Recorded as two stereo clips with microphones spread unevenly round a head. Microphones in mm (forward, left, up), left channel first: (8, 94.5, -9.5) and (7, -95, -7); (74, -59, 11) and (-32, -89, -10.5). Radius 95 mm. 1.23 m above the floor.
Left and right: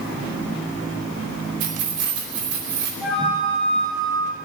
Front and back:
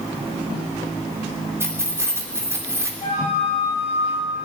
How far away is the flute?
About 6 m.